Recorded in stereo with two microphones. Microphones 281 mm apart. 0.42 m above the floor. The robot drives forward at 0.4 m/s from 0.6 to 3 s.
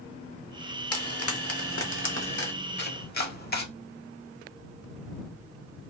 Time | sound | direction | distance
0.9 | frying | 60° left (ahead or behind) | 0.8 m
2.8 | chopping | 40° left (ahead or behind) | 0.7 m